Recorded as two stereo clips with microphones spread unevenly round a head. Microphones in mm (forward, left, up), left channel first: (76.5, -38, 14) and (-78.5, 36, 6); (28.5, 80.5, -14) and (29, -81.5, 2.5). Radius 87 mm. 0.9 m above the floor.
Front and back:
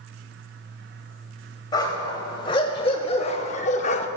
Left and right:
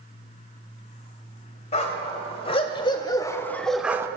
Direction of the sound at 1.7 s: 40° left.